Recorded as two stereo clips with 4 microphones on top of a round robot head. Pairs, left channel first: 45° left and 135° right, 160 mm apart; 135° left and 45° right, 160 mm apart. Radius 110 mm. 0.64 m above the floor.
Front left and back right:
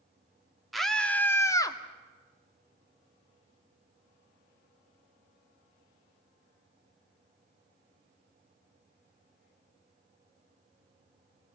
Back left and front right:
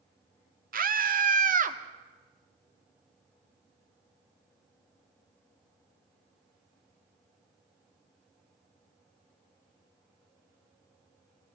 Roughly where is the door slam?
I don't hear a door slam.